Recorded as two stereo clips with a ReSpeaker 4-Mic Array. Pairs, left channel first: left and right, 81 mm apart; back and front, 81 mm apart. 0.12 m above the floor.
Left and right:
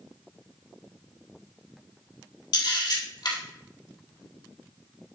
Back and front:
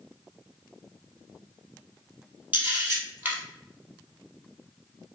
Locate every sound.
2.5 s a camera shutter: 65° left, 2.5 m